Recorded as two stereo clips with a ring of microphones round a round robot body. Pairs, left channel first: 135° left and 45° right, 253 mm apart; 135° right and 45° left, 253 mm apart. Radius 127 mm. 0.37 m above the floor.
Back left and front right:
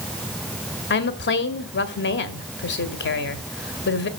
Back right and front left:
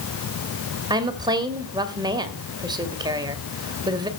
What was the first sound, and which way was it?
A woman speaking, 115° left.